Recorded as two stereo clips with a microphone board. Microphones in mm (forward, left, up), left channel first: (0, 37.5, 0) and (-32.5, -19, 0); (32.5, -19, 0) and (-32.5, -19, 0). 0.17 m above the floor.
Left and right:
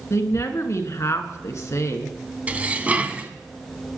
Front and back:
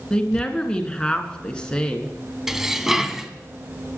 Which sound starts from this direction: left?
A woman speaking, at 0.1 s.